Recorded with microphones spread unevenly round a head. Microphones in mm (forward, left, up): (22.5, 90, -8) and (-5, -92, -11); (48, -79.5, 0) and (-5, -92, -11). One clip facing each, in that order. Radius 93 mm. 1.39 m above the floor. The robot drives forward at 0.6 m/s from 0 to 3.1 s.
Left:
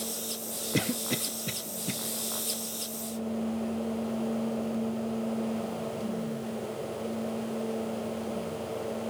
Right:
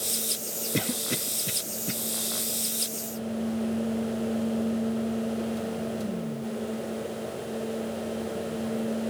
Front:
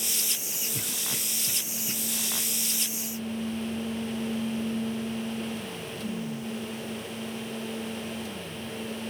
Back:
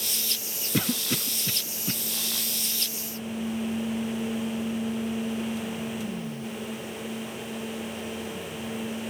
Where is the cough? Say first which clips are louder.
Even, back 11 dB; 170° left, 0.7 m; by 1.9 s 175° left, 1.4 m.